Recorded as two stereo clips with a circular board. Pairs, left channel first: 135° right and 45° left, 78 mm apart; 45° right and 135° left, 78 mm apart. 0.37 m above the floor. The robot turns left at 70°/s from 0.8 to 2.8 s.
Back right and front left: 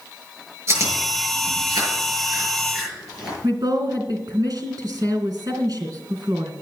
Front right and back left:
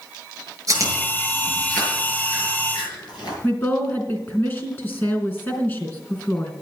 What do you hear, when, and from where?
0.7 s chewing: 95° left, 7.5 m; by 3.3 s 45° right, 7.5 m
3.4 s a woman speaking: 15° left, 3 m